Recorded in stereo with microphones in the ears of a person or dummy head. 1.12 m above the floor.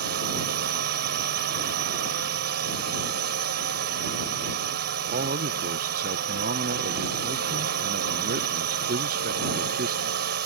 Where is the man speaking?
45° right (ahead or behind).